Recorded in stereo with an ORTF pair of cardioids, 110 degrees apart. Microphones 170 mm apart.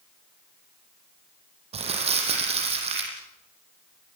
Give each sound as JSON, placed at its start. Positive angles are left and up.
{"t": 1.7, "sound": "crumpling", "azimuth_deg": -35, "distance_m": 6.5}